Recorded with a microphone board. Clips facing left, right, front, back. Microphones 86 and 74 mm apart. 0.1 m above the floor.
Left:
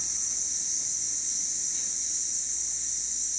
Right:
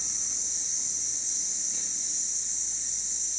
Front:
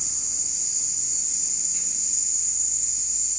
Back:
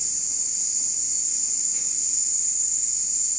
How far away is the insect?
About 1.1 m.